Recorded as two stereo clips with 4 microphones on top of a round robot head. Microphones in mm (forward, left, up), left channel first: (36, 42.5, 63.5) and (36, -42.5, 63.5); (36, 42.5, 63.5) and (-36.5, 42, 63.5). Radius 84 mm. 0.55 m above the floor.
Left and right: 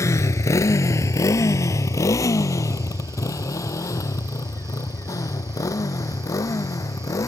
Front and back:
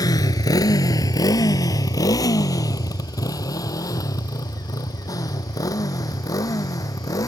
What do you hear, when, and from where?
0.0 s a motorcycle: 35° left; by 7.3 s 40° left